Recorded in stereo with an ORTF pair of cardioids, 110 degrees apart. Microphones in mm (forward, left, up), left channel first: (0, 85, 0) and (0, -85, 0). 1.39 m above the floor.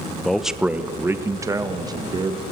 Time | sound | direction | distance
0.2 | a man speaking | 5° left | 0.9 m